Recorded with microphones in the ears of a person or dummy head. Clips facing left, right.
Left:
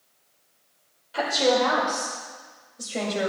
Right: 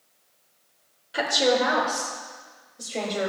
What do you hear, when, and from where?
1.1 s a woman speaking: 20° right (ahead or behind), 1.8 m; by 3.3 s 5° left (ahead or behind), 3 m